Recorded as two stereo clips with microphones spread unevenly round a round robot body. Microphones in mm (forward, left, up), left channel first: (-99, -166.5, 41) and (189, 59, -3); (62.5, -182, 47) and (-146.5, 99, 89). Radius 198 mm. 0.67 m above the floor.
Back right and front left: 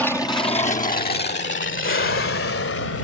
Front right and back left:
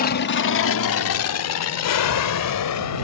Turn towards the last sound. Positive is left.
turn(degrees=-90)